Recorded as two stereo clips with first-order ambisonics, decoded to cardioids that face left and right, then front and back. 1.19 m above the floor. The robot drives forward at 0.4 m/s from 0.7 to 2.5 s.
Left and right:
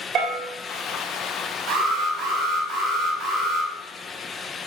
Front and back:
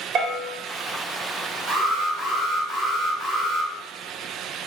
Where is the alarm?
120° right, 2 m; by 3.7 s 130° right, 2.5 m.